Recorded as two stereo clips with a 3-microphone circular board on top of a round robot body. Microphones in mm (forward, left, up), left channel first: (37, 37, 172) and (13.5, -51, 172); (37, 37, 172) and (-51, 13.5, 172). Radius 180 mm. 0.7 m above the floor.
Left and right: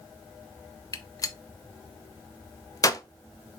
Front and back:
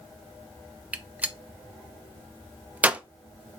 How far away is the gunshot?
About 0.7 m.